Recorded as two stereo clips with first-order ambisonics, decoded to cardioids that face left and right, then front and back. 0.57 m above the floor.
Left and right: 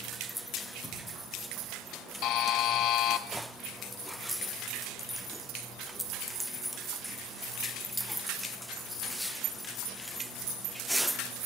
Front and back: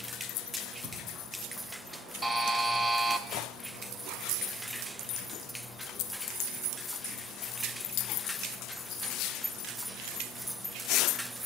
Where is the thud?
155° left, 9 m.